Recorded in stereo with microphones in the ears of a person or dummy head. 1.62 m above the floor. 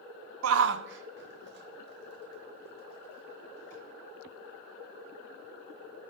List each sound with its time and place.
0.4 s a shout: 85° right, 0.6 m; by 3.8 s 55° right (ahead or behind), 3 m